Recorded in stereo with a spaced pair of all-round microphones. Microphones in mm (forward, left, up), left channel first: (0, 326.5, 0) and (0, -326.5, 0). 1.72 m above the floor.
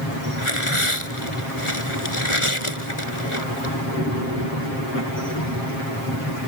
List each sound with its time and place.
0.4 s tearing paper: 50° left (ahead or behind)